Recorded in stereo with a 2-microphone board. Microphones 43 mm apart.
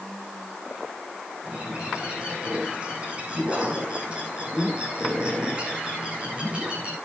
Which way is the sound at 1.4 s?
30° right (ahead or behind).